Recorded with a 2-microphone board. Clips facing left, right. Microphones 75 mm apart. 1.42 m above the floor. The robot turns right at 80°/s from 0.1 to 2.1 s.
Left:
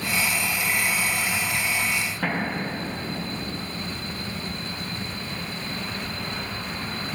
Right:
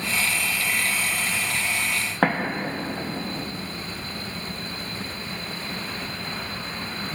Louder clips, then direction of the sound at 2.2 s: Right 6 dB; 65° right (ahead or behind).